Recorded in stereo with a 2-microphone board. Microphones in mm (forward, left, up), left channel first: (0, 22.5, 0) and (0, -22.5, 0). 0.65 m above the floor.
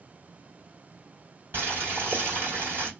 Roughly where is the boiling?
Right.